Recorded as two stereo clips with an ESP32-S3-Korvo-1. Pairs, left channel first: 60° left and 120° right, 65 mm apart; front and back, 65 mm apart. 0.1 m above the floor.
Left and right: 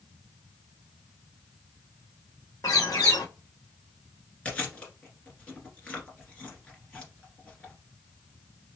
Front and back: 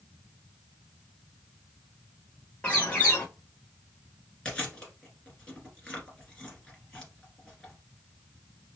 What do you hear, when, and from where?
2.6 s a bird: 70° left, 1.0 m
4.5 s chewing: 50° left, 1.6 m